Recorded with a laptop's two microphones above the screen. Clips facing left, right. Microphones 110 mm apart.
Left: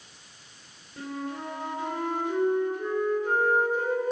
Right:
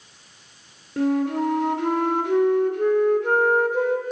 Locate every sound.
1.0 s a flute: 80° right, 2 m